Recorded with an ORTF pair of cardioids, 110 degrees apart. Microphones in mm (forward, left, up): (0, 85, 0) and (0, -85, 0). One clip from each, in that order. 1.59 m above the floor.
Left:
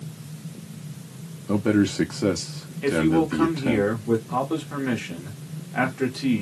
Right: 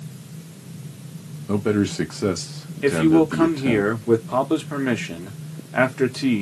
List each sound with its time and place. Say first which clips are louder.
1.5 s a man speaking: even; straight ahead, 0.6 m
2.8 s a man speaking: right 4 dB; 30° right, 0.9 m